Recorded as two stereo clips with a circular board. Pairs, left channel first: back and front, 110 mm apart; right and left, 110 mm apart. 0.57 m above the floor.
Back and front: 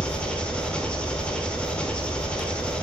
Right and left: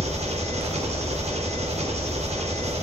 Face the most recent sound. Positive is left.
turn(degrees=100)